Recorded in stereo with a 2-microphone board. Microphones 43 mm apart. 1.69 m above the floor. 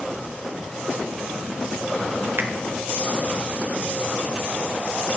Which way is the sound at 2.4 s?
60° right (ahead or behind).